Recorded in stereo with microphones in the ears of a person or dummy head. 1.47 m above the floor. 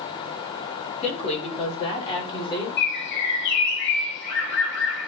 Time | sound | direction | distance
1.0 | a woman speaking | 35° left (ahead or behind) | 3 m
2.8 | a bird | 65° left (ahead or behind) | 3 m